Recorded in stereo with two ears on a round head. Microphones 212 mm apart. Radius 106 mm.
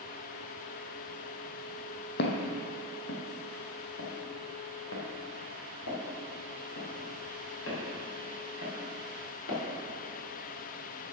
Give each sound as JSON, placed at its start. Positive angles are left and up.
{"t": 2.2, "sound": "footsteps", "side_deg": 45, "distance_m": 1.3}